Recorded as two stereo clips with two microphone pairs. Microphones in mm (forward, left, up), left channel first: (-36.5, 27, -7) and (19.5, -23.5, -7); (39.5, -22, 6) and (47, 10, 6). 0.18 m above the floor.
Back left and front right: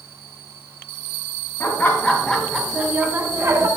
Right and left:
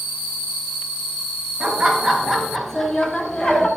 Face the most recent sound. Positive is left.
turn(degrees=-55)